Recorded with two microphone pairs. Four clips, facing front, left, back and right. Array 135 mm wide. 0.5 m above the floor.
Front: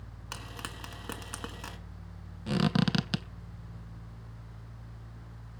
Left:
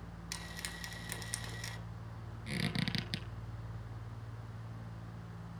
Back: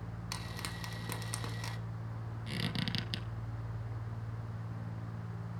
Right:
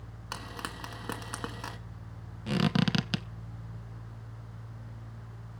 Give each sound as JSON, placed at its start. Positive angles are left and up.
{"t": 0.3, "sound": "frying", "azimuth_deg": -85, "distance_m": 1.6}
{"t": 2.5, "sound": "a squeak", "azimuth_deg": -45, "distance_m": 1.0}